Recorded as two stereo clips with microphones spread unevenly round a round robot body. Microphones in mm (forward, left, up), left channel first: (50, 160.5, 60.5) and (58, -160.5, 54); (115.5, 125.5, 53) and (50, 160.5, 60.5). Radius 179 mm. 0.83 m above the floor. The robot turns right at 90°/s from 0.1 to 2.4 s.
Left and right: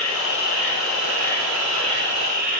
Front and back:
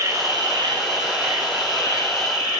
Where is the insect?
110° left, 2.0 m; by 2.6 s 40° right, 2.0 m.